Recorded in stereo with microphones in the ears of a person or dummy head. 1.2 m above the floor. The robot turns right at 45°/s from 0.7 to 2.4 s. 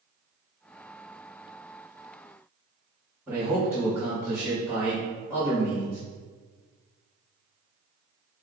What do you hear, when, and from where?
3.3 s a man speaking: 20° right (ahead or behind), 1.7 m